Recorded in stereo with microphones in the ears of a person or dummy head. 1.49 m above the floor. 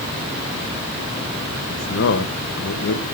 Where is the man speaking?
65° left (ahead or behind), 2.5 m.